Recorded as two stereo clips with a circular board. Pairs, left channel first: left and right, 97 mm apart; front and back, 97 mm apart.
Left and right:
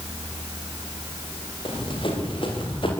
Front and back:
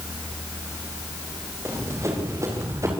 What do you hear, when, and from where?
1.6 s running footsteps: 120° left, 8 m